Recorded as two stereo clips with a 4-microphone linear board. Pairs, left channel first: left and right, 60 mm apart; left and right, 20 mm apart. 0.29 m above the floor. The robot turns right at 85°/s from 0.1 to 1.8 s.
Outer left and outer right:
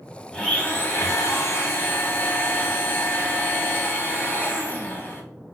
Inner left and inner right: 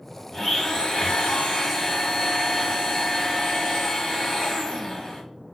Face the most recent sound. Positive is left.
turn(degrees=135)